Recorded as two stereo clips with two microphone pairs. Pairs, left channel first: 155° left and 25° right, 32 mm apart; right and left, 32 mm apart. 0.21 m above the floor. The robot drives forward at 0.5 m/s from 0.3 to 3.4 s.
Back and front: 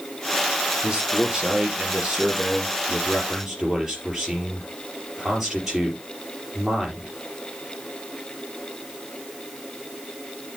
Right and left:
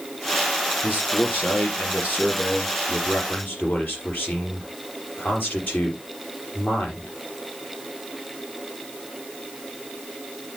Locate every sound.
0.8 s a man speaking: 85° right, 4 m; by 7.1 s 105° right, 4 m